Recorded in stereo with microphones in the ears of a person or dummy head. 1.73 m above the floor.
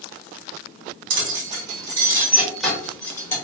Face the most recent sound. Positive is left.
turn(degrees=15)  # may be behind; listen again after turning